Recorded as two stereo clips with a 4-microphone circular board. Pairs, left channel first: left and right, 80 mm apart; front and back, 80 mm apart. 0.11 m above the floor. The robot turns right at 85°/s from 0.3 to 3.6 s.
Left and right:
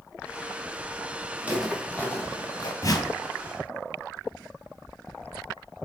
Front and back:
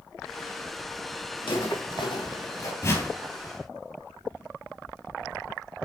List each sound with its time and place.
1.4 s footsteps: 20° right, 3 m; by 2.7 s 60° left, 2.5 m
2.8 s a whoosh: 50° left, 1.8 m; by 3.1 s 70° left, 1.8 m